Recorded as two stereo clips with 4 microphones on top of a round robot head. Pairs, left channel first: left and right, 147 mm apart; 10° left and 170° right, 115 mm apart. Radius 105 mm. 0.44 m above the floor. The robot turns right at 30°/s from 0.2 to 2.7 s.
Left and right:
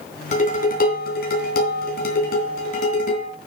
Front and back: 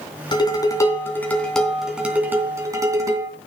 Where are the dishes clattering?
55° left, 3 m; by 3.3 s 130° left, 3 m.